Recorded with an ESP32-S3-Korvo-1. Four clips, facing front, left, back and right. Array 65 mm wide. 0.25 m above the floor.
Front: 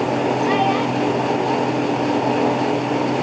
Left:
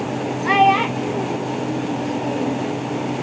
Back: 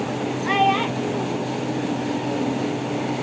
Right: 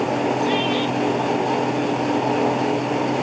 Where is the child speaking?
95° left; by 2.6 s 120° left.